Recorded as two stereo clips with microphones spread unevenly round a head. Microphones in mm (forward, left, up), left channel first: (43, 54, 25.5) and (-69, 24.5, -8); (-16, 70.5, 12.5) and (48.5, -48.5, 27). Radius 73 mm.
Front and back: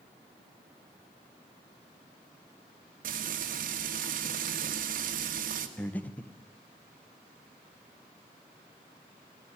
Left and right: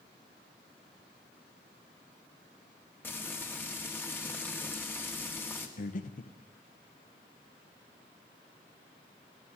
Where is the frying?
165° right, 2.0 m.